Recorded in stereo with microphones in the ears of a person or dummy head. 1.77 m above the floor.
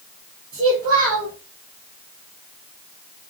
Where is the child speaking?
25° right (ahead or behind), 1.0 m.